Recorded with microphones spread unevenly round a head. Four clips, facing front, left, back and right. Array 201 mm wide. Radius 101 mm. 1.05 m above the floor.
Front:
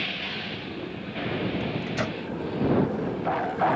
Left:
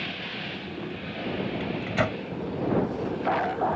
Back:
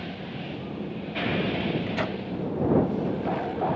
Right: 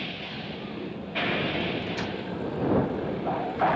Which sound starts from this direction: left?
A microwave, at 1.6 s.